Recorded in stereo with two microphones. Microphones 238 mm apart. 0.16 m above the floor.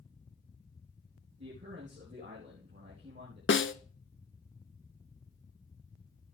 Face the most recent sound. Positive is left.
turn(degrees=55)  # may be behind; listen again after turning